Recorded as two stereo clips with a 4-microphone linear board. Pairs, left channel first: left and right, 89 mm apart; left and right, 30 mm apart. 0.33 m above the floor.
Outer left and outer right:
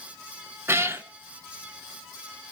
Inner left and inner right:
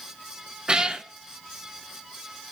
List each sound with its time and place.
0.7 s a cat meowing: 25° right (ahead or behind), 0.6 m